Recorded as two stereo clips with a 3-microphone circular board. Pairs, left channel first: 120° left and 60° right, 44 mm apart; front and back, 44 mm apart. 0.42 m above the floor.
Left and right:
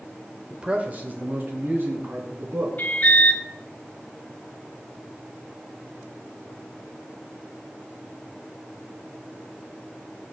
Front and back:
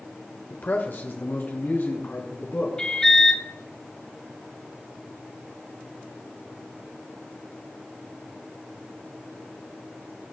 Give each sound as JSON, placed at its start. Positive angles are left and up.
{"t": 0.5, "sound": "a man speaking", "azimuth_deg": 5, "distance_m": 1.0}
{"t": 2.8, "sound": "an alarm", "azimuth_deg": 75, "distance_m": 2.0}